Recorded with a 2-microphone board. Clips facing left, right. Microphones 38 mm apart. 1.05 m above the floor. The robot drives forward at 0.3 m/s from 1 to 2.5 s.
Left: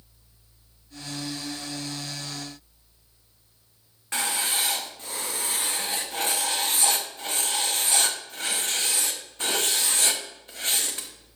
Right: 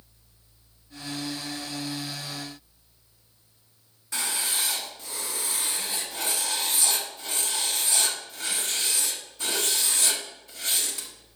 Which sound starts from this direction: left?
Writing, at 4.1 s.